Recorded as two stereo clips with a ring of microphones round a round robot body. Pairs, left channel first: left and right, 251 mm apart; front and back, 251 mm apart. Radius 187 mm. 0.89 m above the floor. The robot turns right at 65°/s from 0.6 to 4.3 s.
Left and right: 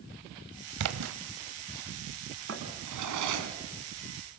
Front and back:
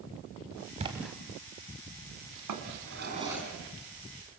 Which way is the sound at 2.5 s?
150° right.